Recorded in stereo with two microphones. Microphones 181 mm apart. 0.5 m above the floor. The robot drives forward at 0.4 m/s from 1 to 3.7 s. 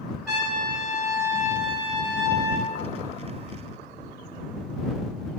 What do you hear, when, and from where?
0.3 s a trumpet: centre (ahead or behind), 1.6 m